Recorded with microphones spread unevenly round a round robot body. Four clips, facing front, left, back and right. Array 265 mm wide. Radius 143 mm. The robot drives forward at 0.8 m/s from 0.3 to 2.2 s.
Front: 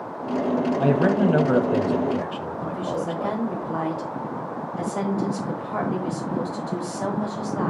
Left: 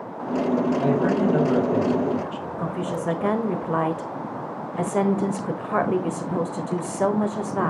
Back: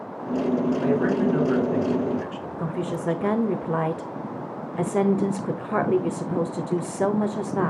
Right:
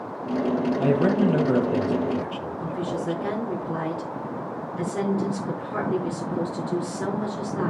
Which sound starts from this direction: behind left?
A woman speaking, at 2.6 s.